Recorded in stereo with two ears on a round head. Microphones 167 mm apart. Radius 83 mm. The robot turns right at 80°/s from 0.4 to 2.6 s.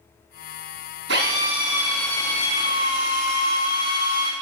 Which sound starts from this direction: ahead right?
A drill, at 1.1 s.